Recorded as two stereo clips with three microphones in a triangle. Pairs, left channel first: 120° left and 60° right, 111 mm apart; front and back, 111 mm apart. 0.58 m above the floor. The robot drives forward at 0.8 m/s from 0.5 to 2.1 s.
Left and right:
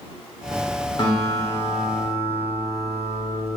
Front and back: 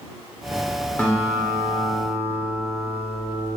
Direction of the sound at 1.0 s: 75° left.